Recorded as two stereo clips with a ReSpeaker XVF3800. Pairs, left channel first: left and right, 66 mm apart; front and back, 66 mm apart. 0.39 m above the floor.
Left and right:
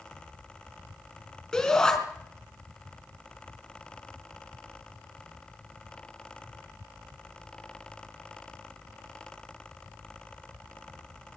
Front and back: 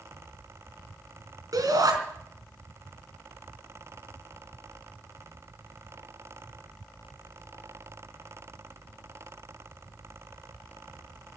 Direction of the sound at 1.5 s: 170° left.